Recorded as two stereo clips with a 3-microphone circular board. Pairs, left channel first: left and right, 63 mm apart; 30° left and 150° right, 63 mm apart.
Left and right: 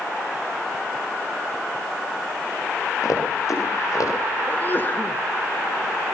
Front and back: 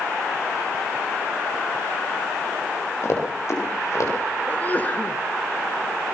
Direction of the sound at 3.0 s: 70° left.